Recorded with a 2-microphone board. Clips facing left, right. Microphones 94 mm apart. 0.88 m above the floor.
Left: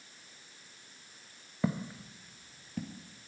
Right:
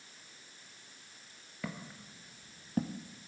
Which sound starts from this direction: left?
Footsteps, at 1.6 s.